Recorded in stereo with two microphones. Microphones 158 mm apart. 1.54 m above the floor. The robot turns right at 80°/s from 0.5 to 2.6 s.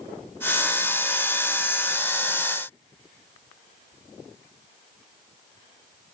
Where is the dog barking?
No dog barking in this recording.